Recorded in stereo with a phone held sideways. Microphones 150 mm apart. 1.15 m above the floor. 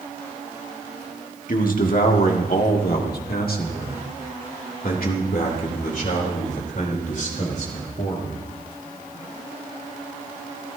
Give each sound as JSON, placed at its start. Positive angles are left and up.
{"t": 1.5, "sound": "a man speaking", "side_deg": 65, "distance_m": 1.9}